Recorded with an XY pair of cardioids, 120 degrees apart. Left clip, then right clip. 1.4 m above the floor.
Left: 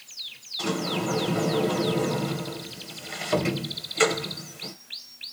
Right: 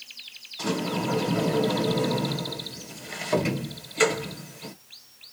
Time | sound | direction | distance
0.6 | a sliding door | 5° left | 1.7 m